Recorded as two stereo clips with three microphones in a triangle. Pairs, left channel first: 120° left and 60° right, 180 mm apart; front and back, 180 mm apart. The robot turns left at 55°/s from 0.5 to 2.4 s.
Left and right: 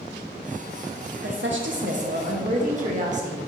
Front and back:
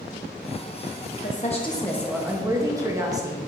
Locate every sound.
1.2 s a woman speaking: 45° right, 1.2 m; by 3.4 s 105° right, 1.2 m